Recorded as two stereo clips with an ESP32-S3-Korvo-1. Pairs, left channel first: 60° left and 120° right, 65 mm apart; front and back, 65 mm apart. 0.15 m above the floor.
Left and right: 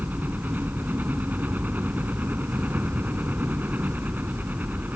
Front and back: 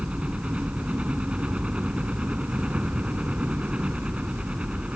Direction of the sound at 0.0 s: 130° right.